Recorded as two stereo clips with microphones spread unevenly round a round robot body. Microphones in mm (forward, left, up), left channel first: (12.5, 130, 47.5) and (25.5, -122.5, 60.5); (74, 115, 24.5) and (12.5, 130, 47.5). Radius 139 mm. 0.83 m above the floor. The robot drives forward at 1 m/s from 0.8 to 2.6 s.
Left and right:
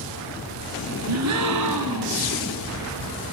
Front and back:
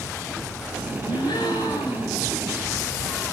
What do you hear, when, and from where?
1.1 s a gasp: 60° right, 1.8 m; by 2.2 s 100° right, 1.6 m